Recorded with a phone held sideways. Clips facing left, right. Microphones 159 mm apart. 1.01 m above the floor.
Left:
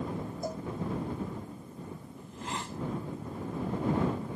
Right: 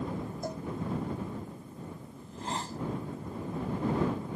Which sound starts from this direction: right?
A hiss, at 2.2 s.